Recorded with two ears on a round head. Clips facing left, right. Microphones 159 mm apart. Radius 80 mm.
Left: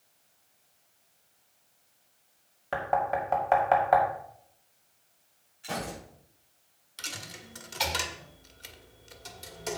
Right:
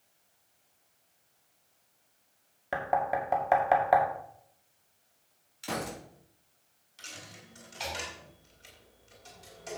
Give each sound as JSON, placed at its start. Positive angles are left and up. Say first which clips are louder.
{"t": 2.7, "sound": "knocking", "louder": "left 1 dB", "side_deg": -10, "distance_m": 1.9}
{"t": 5.6, "sound": "a gunshot", "louder": "even", "side_deg": -75, "distance_m": 3.5}
{"t": 7.0, "sound": "a dropped coin", "louder": "left 5 dB", "side_deg": 65, "distance_m": 1.7}